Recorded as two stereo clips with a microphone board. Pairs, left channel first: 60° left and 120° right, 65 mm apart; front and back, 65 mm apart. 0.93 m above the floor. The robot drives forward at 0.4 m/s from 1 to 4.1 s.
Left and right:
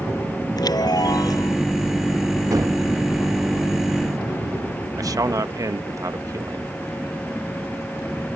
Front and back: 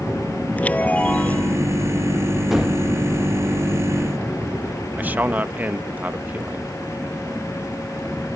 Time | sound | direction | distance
0.6 | a chime | 70° left | ?
2.5 | a gunshot | 95° right | ?
5.0 | a man speaking | 120° right | ?